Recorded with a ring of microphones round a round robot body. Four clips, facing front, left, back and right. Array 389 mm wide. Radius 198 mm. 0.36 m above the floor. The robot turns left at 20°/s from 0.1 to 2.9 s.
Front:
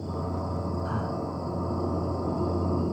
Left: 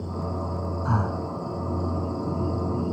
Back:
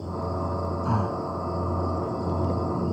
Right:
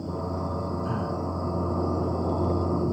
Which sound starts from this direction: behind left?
Breathing, at 0.8 s.